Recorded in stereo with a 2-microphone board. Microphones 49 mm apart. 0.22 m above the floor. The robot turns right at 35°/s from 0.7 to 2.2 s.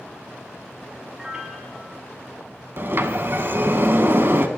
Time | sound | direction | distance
1.2 | a piano | 15° right (ahead or behind) | 1.1 m
2.8 | a sliding door | 50° right (ahead or behind) | 0.6 m